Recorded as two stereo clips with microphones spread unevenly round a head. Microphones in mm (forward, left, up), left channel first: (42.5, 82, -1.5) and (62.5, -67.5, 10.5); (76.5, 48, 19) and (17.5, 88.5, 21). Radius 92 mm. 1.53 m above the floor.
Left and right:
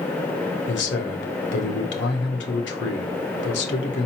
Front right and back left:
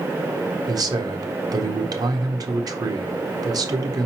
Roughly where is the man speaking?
Behind left.